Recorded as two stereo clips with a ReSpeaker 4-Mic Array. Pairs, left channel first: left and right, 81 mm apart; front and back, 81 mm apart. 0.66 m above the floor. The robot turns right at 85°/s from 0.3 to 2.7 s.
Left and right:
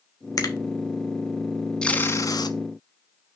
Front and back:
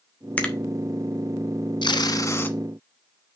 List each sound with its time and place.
0.4 s a finger snap: 70° left, 1.4 m; by 0.6 s 85° left, 1.4 m
1.8 s tape being pulled: 10° left, 1.1 m; by 2.6 s 75° left, 1.1 m